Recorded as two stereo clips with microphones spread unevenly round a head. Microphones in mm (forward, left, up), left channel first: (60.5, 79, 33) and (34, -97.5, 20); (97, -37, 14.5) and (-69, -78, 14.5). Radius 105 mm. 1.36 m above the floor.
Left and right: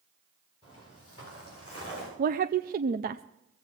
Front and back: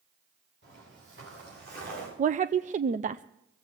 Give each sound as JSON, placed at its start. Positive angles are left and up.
{"t": 0.6, "sound": "footsteps", "azimuth_deg": 150, "distance_m": 8.5}
{"t": 2.2, "sound": "a woman speaking", "azimuth_deg": -125, "distance_m": 0.5}